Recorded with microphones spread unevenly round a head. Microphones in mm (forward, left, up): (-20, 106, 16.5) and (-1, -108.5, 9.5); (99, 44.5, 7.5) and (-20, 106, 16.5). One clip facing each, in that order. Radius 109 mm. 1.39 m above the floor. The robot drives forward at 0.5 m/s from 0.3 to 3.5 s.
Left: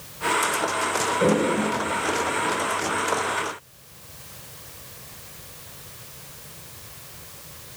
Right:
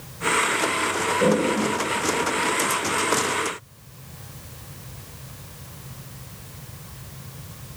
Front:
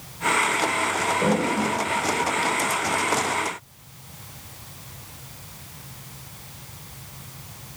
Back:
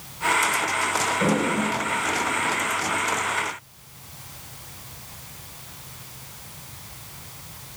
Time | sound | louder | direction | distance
1.2 | a toilet flushing | even, even | 160° right | 1.6 m